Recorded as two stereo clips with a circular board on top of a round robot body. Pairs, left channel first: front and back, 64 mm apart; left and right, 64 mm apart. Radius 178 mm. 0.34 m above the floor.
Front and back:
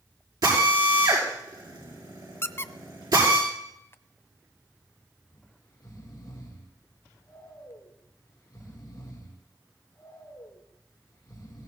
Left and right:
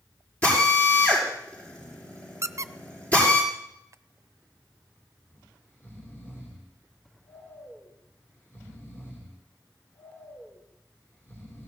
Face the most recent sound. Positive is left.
turn(degrees=30)